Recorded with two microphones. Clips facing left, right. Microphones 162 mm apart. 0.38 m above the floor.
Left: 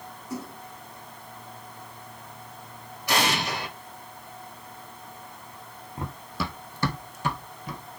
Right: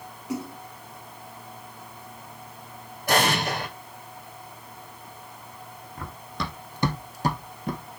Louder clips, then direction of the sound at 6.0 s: Left 2 dB; 25° left (ahead or behind).